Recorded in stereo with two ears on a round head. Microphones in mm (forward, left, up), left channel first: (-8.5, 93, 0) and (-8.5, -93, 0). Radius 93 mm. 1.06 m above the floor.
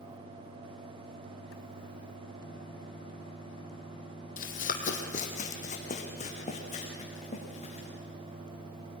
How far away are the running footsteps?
About 1.8 m.